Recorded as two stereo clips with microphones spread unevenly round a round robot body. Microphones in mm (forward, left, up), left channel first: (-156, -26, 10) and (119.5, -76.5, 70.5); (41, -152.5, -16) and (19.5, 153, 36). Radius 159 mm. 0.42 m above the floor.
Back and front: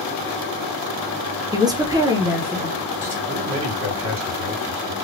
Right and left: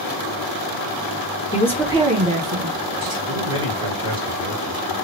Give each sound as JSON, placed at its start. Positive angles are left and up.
{"t": 1.5, "sound": "a woman speaking", "azimuth_deg": -100, "distance_m": 0.8}
{"t": 3.3, "sound": "a man speaking", "azimuth_deg": 15, "distance_m": 2.0}